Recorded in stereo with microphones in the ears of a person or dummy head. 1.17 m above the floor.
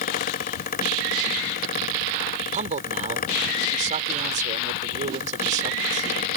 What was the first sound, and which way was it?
A fan, 40° left (ahead or behind).